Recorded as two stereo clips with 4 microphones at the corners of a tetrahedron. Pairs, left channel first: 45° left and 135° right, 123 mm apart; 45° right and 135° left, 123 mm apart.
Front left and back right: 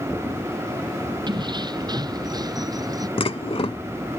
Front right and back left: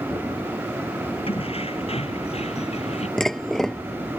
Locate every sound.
1.3 s keys jangling: 85° right; by 3.1 s 75° right
3.2 s dishes clattering: 40° left